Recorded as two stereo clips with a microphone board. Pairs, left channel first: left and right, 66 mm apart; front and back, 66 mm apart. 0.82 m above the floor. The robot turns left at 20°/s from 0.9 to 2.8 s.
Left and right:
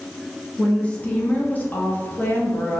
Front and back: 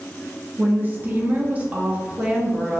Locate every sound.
0.6 s a woman speaking: 145° left, 0.7 m; by 2.8 s 105° left, 0.7 m